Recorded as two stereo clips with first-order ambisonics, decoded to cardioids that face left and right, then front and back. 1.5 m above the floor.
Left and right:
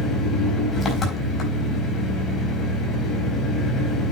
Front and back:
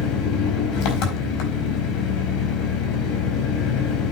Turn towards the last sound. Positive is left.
turn(degrees=25)